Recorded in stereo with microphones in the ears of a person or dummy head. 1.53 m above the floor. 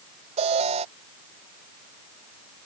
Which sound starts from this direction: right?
An alarm, at 0.4 s.